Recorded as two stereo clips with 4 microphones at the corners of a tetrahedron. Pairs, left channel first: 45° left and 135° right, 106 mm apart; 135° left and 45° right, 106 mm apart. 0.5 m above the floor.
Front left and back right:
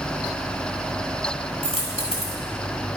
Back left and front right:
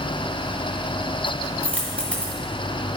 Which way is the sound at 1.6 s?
55° left.